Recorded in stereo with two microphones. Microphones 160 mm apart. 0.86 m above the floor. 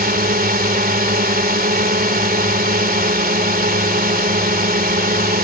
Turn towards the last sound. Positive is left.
turn(degrees=-65)  # may be behind; listen again after turning